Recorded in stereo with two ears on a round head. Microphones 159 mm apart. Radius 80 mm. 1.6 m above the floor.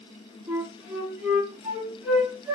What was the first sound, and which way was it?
A flute, 10° right (ahead or behind).